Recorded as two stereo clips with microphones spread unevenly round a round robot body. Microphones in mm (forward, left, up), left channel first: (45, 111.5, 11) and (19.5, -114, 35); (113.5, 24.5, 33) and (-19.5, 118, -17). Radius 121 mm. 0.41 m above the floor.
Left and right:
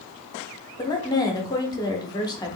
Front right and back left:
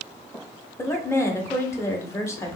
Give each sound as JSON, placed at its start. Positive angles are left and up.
{"t": 0.8, "sound": "a woman speaking", "azimuth_deg": 55, "distance_m": 0.8}